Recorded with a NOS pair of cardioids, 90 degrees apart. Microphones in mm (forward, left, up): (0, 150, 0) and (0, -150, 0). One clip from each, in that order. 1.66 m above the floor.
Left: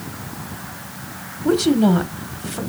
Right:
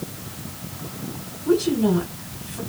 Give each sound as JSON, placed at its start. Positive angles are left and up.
{"t": 1.4, "sound": "a woman speaking", "azimuth_deg": 70, "distance_m": 1.4}